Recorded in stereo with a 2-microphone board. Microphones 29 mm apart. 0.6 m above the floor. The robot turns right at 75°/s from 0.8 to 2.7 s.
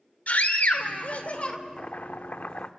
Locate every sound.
0.3 s a scream: 80° left, 2 m; by 1.6 s 140° left, 2 m
1.8 s chopping: 50° left, 0.7 m; by 2.7 s 125° left, 0.7 m